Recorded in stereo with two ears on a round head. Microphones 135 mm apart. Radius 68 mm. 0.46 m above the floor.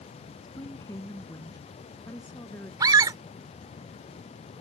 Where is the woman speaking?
20° left (ahead or behind); by 2.7 s 15° left (ahead or behind).